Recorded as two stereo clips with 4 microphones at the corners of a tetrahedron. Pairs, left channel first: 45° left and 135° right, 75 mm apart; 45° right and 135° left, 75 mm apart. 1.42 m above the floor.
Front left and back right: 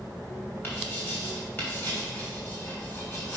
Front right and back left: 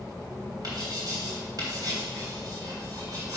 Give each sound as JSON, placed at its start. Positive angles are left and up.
{"t": 0.6, "sound": "writing", "azimuth_deg": 100, "distance_m": 3.5}